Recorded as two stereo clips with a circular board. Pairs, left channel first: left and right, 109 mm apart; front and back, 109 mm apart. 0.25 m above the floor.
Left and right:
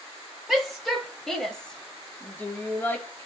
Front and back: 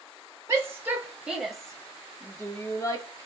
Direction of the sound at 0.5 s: 165° right.